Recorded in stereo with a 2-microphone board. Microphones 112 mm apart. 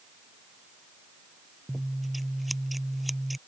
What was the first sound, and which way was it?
Scissors, centre (ahead or behind).